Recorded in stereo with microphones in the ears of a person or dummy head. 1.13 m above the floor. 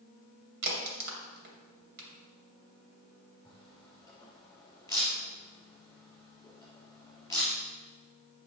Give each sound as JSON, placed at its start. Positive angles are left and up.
{"t": 0.6, "sound": "a crack", "side_deg": -60, "distance_m": 2.5}
{"t": 3.5, "sound": "a camera shutter", "side_deg": 20, "distance_m": 3.0}